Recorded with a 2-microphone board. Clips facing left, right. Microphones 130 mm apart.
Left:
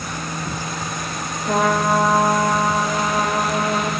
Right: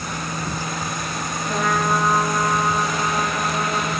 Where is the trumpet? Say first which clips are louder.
Left 4 dB; 65° left (ahead or behind), 4.5 m.